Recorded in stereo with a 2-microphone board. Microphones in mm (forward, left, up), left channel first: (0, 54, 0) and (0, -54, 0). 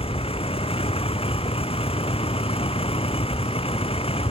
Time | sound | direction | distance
0.0 | a vehicle | 65° left (ahead or behind) | ?